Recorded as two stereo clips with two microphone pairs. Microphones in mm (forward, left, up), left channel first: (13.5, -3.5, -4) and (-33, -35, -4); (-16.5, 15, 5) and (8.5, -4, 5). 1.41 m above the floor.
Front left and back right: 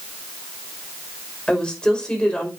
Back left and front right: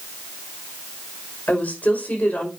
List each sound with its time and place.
1.5 s a woman speaking: 110° left, 5.5 m